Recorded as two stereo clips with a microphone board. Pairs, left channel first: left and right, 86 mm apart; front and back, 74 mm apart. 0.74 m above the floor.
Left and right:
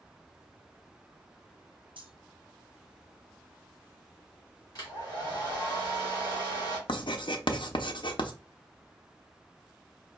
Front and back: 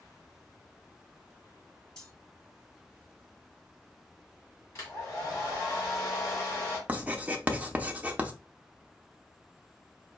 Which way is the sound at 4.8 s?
50° left.